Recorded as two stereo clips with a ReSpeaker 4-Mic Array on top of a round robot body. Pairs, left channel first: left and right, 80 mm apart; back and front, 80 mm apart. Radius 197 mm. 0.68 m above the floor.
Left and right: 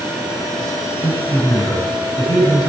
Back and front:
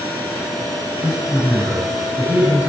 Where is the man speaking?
65° left, 9.5 m.